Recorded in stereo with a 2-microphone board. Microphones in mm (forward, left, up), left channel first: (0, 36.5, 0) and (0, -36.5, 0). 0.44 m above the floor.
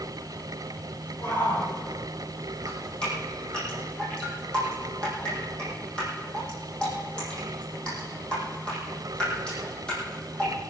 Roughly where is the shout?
Left.